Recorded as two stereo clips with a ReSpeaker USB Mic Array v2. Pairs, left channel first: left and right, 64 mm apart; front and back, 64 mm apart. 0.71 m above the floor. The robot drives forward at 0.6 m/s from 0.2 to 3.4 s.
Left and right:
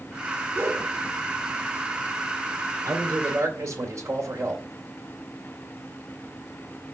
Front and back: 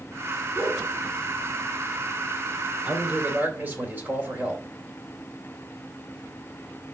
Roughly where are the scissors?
I don't hear scissors.